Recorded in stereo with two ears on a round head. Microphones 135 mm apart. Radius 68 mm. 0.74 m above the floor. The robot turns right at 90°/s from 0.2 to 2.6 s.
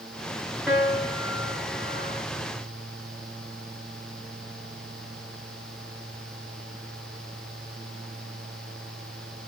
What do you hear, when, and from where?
0.7 s a piano: 5° right, 3 m; by 2.2 s 135° left, 3 m